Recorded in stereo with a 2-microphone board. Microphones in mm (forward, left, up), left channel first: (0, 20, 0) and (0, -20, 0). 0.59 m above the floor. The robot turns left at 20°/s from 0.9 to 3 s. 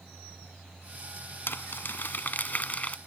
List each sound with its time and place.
1.5 s crumpling: 65° left; by 3.0 s 35° left